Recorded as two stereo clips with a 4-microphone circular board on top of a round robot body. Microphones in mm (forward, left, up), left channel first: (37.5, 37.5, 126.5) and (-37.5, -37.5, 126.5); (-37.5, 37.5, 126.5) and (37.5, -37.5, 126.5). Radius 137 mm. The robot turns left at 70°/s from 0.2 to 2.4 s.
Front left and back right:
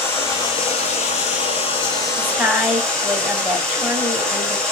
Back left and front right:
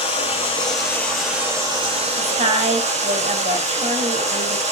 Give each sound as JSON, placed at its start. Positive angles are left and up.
{"t": 0.0, "sound": "running water", "azimuth_deg": 115, "distance_m": 7.0}
{"t": 2.2, "sound": "a woman speaking", "azimuth_deg": -40, "distance_m": 4.0}